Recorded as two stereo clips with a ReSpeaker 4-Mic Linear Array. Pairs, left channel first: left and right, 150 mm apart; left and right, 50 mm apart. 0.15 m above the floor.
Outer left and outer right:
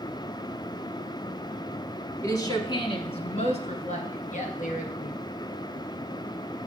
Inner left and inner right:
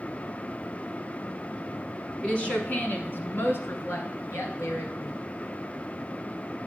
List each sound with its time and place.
2.2 s a woman speaking: 20° left (ahead or behind), 1.1 m; by 5.2 s 65° left (ahead or behind), 2.5 m